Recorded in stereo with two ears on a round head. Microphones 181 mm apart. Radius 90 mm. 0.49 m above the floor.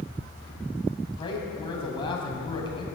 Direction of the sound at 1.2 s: 25° left (ahead or behind).